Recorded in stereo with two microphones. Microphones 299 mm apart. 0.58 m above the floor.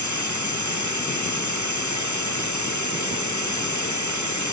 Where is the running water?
70° left (ahead or behind).